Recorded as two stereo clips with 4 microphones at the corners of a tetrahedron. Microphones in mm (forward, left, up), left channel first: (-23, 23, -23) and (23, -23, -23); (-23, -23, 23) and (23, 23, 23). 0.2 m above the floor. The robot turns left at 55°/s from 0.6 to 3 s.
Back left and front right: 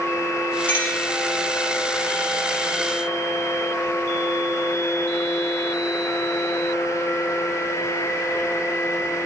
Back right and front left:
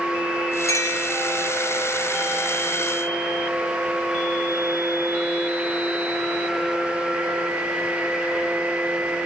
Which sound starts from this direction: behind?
A clink, at 0.7 s.